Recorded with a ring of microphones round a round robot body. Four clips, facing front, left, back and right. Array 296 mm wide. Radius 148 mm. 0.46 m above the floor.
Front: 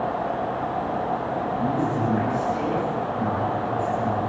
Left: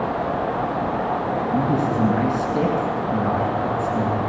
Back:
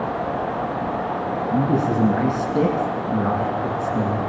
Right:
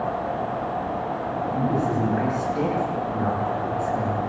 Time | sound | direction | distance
1.5 | a man speaking | 155° left | 6 m